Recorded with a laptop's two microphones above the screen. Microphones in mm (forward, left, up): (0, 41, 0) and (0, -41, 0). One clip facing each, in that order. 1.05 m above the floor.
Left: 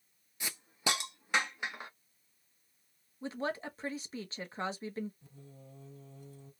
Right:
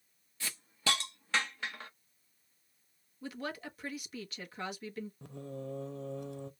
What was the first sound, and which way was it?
A hiss, 15° left (ahead or behind).